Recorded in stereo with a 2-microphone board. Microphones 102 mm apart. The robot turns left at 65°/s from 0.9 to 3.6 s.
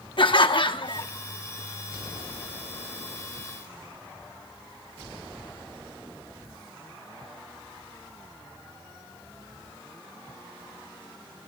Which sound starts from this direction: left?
Laughter, at 0.2 s.